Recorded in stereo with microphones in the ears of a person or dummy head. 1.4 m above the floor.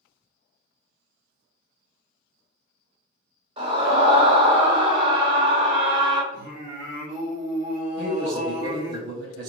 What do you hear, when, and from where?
3.6 s a scream: 20° right (ahead or behind), 1.3 m
6.3 s singing: 35° right (ahead or behind), 1.2 m
8.0 s a man speaking: 55° right (ahead or behind), 0.6 m